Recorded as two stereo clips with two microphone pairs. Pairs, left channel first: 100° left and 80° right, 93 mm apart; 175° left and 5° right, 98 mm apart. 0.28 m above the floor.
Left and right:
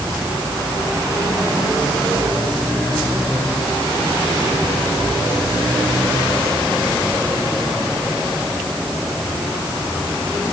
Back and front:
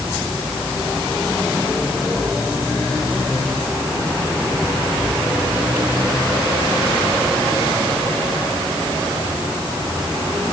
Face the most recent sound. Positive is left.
No sound to turn to.